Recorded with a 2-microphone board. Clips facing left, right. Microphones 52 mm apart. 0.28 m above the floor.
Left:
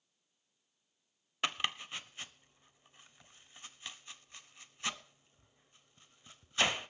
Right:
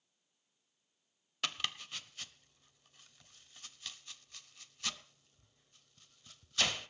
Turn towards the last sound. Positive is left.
turn(degrees=25)  # may be behind; listen again after turning